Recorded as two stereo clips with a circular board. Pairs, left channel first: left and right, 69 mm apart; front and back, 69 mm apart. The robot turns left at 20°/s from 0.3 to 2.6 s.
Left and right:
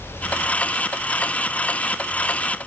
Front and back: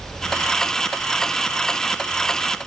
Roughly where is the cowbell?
No cowbell in this recording.